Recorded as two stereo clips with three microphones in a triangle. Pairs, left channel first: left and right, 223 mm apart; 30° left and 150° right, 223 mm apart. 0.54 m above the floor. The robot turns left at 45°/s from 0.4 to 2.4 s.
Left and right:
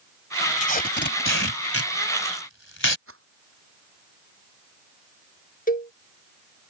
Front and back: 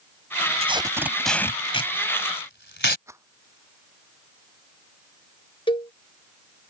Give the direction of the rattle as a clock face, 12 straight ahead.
2 o'clock.